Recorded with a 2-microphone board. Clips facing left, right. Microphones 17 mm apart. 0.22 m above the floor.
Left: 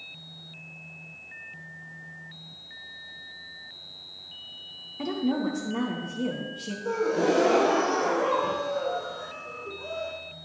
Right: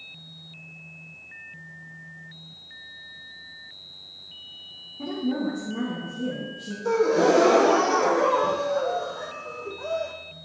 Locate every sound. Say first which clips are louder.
5.0 s a woman speaking: even; 75° left (ahead or behind), 4 m
6.8 s a gasp: right 5 dB; 35° right (ahead or behind), 1.8 m